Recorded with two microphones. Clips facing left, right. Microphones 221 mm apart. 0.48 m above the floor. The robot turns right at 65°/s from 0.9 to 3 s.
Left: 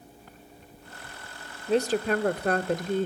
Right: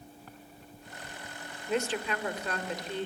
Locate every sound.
1.7 s a woman speaking: 35° left, 1.1 m; by 3.1 s 125° left, 1.1 m